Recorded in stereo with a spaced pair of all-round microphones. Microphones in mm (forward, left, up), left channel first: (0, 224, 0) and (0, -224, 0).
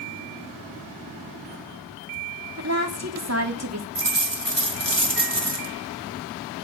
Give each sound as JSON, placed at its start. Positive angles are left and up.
{"t": 2.6, "sound": "a woman speaking", "side_deg": -35, "distance_m": 2.5}
{"t": 4.0, "sound": "a dropped coin", "side_deg": -70, "distance_m": 2.5}